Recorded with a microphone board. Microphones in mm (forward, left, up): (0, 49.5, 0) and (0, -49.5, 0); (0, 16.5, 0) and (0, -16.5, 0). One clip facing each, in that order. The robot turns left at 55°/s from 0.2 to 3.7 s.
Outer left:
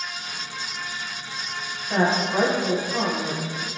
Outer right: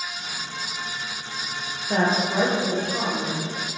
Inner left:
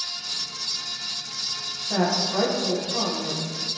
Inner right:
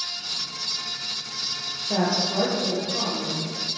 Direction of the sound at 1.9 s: 150° right.